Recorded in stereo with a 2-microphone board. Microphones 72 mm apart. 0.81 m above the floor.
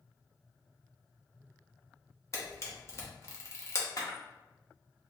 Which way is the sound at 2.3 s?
40° left (ahead or behind).